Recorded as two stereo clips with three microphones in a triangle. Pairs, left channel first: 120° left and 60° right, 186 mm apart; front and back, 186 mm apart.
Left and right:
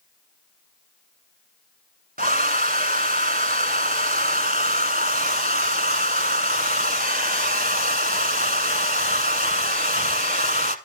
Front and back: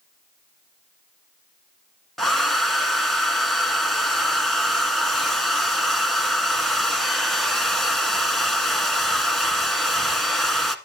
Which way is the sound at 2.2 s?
90° right.